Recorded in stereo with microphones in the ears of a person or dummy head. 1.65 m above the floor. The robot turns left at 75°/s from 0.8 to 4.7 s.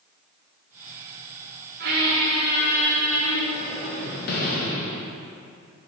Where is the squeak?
90° right, 0.7 m; by 5.2 s 50° left, 0.7 m.